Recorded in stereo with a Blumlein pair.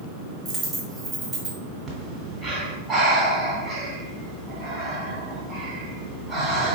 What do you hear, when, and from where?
0.5 s a dropped coin: 10° right, 1.5 m
1.9 s breathing: 15° right, 1.8 m